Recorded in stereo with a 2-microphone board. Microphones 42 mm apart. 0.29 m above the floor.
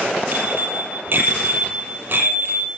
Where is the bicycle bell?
50° right (ahead or behind), 5.5 m.